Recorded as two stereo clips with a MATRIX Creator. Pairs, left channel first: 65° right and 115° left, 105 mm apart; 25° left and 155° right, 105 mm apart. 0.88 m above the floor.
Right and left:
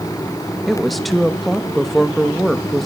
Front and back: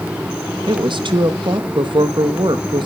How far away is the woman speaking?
About 1.2 m.